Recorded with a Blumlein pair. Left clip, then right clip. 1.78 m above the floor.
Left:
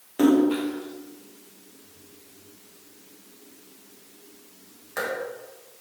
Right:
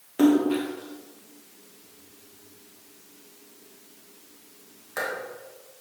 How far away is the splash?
About 1.6 m.